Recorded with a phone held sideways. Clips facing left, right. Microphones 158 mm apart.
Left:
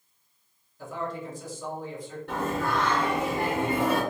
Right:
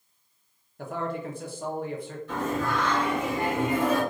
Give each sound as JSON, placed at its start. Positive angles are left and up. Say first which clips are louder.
{"t": 0.8, "sound": "a man speaking", "louder": "right 2 dB", "side_deg": -65, "distance_m": 0.9}
{"t": 2.3, "sound": "singing", "louder": "even", "side_deg": 70, "distance_m": 1.8}